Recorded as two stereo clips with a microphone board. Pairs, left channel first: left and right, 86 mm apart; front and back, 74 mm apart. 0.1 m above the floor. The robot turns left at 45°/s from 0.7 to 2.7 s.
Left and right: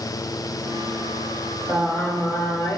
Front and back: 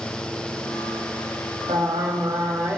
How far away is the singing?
About 1.5 m.